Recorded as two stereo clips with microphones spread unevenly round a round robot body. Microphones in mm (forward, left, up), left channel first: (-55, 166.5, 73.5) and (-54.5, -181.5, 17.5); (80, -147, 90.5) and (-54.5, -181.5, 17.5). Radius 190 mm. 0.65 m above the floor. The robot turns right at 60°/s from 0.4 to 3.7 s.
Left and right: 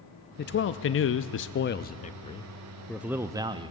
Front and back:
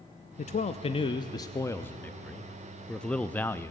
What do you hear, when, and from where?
0.4 s a man speaking: 55° left, 0.5 m; by 3.7 s 110° right, 0.5 m